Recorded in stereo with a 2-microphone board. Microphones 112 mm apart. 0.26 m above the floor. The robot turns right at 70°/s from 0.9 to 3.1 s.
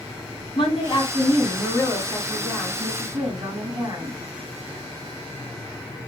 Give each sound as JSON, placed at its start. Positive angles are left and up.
{"t": 0.6, "sound": "a woman speaking", "azimuth_deg": 70, "distance_m": 2.0}